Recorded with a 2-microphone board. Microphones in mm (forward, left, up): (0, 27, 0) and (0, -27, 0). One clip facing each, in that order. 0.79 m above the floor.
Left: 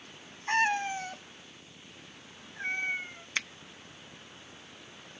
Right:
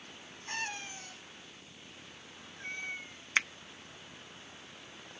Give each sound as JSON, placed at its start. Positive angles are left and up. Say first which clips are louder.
{"t": 0.5, "sound": "a cat meowing", "louder": "left 12 dB", "side_deg": 50}
{"t": 3.4, "sound": "a finger snap", "louder": "right 4 dB", "side_deg": -25}